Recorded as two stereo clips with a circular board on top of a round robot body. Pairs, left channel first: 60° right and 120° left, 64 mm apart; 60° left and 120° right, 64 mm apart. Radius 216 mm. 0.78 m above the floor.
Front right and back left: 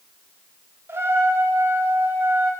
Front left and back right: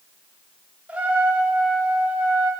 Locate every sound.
0.9 s a trumpet: 170° left, 1.8 m